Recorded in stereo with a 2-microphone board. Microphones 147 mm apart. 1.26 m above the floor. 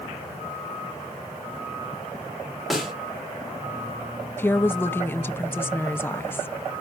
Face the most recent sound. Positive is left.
turn(degrees=15)  # may be behind; listen again after turning